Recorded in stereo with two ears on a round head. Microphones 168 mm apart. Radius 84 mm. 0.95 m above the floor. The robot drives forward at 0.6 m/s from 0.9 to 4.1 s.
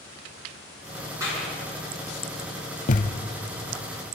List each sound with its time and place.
1.2 s a clap: 15° right (ahead or behind), 8 m
2.9 s a thud: 45° left (ahead or behind), 0.9 m